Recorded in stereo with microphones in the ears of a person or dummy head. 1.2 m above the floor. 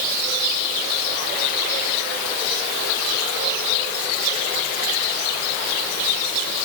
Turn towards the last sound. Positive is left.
No sound to turn to.